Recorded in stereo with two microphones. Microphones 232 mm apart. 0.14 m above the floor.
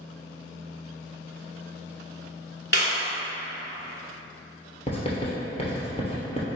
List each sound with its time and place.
2.7 s a clap: 45° left (ahead or behind), 1.4 m
4.9 s writing: 25° left (ahead or behind), 1.4 m